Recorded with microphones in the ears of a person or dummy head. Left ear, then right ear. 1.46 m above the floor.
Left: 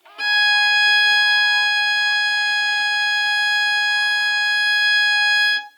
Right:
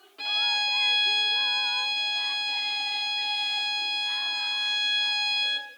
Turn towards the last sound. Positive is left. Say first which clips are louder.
# left 10 dB
turn(degrees=45)  # may be behind; listen again after turning